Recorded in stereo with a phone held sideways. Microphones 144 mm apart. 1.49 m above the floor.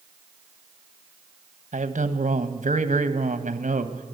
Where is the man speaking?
60° right (ahead or behind), 1.3 m.